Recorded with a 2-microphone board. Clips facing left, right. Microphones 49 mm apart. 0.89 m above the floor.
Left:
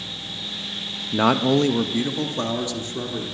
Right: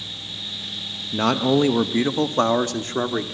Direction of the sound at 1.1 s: 20° left (ahead or behind).